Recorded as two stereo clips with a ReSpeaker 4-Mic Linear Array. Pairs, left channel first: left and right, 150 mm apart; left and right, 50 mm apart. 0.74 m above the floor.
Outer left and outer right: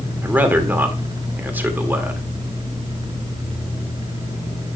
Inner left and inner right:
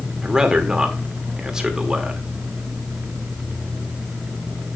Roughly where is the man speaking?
Centre.